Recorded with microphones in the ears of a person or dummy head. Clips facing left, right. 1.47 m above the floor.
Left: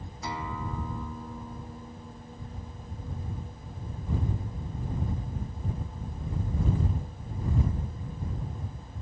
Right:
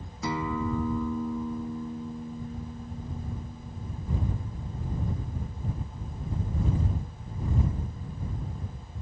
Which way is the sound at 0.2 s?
75° right (ahead or behind).